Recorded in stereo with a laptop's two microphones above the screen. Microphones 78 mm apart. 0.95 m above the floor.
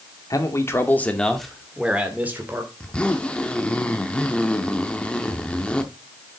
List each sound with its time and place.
0.3 s a man speaking: 45° left (ahead or behind), 2 m; by 2.7 s 30° right (ahead or behind), 3 m
2.8 s a zipper: 15° left (ahead or behind), 0.8 m